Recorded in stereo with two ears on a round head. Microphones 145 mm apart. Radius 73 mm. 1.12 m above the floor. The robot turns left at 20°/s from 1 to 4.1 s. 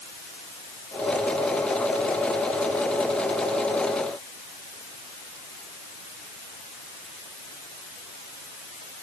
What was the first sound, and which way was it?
Only background noise.